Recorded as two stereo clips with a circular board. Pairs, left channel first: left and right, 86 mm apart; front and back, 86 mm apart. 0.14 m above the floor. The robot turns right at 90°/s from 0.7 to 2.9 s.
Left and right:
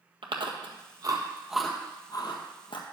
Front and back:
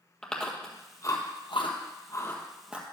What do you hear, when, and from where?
0.2 s chewing: 80° right, 1.5 m; by 2.8 s 110° left, 1.5 m